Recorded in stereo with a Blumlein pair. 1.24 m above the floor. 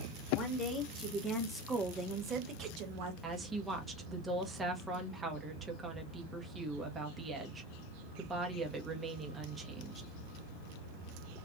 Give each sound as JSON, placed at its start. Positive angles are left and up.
{"t": 0.3, "sound": "a woman speaking", "azimuth_deg": 25, "distance_m": 1.5}
{"t": 3.2, "sound": "a woman speaking", "azimuth_deg": -15, "distance_m": 1.3}